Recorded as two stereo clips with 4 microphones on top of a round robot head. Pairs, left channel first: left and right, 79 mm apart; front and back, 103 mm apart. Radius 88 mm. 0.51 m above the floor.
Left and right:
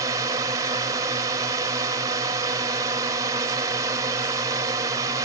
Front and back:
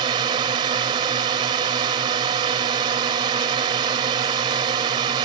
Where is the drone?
135° right.